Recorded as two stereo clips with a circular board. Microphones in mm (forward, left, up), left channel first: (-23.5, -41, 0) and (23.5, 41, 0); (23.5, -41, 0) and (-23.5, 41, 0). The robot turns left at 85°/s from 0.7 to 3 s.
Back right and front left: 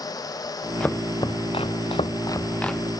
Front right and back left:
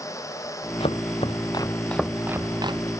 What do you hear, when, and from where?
0.8 s chopping: 40° right; by 2.9 s 145° left